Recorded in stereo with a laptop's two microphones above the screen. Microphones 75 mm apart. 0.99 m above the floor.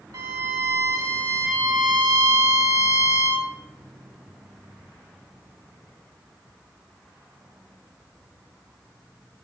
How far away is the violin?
About 2.0 m.